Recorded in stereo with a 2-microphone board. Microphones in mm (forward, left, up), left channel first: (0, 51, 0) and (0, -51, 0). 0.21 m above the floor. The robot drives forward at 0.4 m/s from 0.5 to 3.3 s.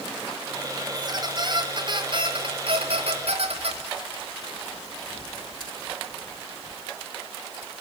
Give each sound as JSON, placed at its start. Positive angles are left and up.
{"t": 0.9, "sound": "a squeak", "side_deg": -40, "distance_m": 1.8}